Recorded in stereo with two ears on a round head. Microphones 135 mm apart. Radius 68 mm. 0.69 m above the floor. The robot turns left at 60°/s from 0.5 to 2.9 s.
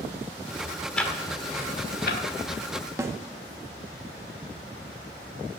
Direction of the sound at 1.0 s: 5° left (ahead or behind).